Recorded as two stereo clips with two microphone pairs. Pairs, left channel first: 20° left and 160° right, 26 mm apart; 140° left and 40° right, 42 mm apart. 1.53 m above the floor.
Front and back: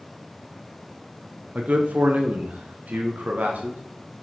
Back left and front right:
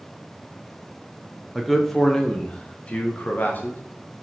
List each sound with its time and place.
1.6 s a man speaking: 135° right, 1.4 m; by 3.8 s straight behind, 1.9 m